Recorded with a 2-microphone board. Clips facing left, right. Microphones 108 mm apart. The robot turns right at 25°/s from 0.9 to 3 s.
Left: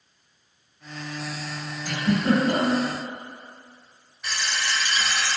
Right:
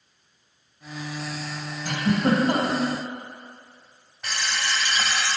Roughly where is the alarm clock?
Right.